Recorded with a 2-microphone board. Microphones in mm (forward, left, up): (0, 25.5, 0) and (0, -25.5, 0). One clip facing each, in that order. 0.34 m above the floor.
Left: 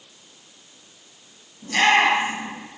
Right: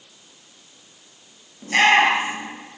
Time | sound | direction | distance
1.6 | a shout | 40° right (ahead or behind) | 6.5 m